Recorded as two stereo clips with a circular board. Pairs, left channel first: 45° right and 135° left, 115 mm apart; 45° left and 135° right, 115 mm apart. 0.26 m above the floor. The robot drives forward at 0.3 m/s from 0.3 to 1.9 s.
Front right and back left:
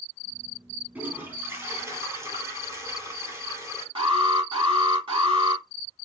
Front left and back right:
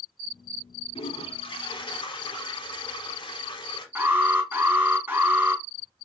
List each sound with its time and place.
0.9 s a toilet flushing: 65° left, 1.4 m; by 3.9 s 75° left, 1.3 m
4.0 s an alarm: 155° left, 3.5 m